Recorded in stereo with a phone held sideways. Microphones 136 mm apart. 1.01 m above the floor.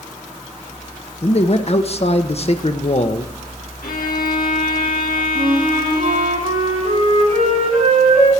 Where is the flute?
45° right (ahead or behind), 8 m.